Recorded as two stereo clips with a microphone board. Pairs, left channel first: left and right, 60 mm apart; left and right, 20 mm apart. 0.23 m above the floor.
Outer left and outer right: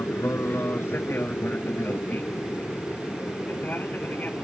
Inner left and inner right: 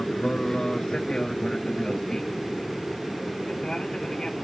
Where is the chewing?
No chewing in this recording.